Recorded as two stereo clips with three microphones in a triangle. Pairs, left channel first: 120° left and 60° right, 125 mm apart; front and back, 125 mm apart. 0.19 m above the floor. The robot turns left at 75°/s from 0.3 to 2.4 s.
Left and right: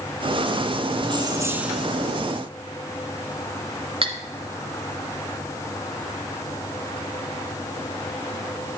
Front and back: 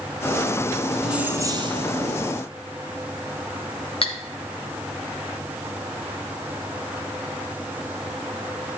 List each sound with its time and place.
1.0 s keys jangling: 90° right, 1.3 m; by 2.1 s 175° right, 1.3 m
4.0 s cutlery clinking: 30° right, 1.5 m